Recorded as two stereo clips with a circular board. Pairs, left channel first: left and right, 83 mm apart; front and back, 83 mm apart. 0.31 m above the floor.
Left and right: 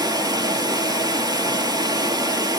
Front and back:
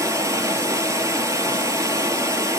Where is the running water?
130° right, 1.0 m.